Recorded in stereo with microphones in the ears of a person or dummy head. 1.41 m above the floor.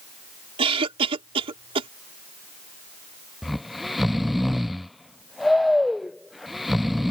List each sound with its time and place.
0.6 s a cough: 30° right (ahead or behind)
3.4 s snoring: centre (ahead or behind)